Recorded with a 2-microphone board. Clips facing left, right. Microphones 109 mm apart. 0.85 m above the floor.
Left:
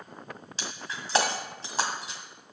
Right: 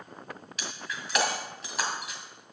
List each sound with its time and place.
0.6 s breaking glass: 30° left (ahead or behind), 1.7 m